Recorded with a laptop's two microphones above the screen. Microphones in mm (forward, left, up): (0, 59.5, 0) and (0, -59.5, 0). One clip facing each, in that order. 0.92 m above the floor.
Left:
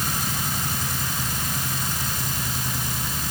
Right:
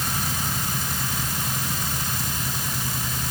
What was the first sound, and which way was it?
Only background noise.